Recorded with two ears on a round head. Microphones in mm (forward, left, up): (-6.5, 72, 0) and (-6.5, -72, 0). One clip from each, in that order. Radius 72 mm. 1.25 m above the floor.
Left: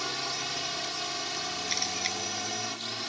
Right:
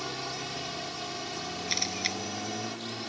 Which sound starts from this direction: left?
A drone, at 0.0 s.